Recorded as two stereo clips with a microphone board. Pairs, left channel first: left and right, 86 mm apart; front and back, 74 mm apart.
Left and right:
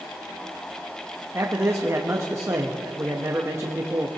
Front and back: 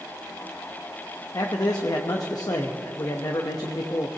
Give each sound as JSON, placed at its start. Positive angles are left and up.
{"t": 1.3, "sound": "a man speaking", "azimuth_deg": -35, "distance_m": 0.9}